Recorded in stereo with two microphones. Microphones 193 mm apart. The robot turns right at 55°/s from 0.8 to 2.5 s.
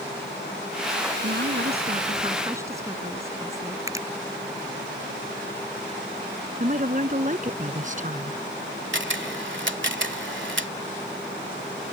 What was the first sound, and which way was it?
A woman speaking, 85° right.